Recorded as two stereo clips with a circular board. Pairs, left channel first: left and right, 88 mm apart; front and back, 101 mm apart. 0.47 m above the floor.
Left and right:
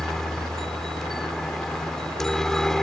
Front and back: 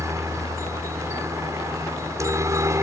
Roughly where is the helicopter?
Behind.